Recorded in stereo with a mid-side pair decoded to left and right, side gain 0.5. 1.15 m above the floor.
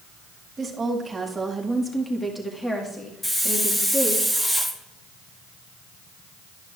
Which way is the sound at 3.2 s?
15° left.